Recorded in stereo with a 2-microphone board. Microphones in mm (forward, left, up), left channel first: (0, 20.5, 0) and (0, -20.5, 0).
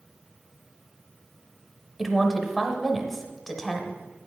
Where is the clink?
No clink in this recording.